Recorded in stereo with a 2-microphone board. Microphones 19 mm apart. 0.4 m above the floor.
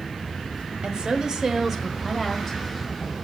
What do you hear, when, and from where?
0.8 s a woman speaking: 50° right (ahead or behind), 1.3 m; by 3.1 s 10° left (ahead or behind), 2 m